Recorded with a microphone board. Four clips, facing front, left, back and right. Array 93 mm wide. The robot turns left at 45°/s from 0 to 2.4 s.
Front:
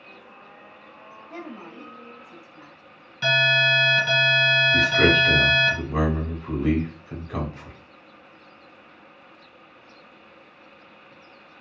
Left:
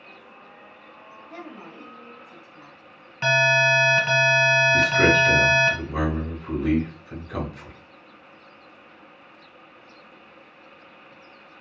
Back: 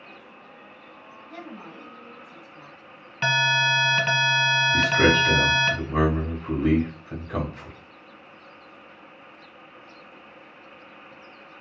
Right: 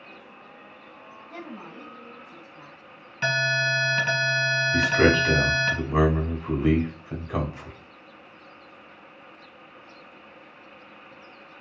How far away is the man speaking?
About 1.0 m.